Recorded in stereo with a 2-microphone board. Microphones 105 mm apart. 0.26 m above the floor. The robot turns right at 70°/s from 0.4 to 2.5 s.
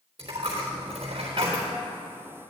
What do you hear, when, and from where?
0.2 s a dropped coin: 120° right, 3.5 m; by 1.7 s 30° right, 3.5 m